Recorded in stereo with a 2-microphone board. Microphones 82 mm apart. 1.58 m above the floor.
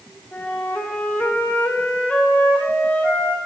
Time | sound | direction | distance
0.3 | a flute | 15° left (ahead or behind) | 1.3 m